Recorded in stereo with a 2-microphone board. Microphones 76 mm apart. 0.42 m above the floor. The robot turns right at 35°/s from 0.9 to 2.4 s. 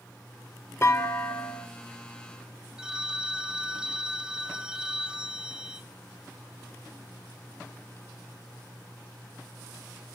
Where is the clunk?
35° left (ahead or behind), 0.9 m; by 1.7 s 20° left (ahead or behind), 0.9 m.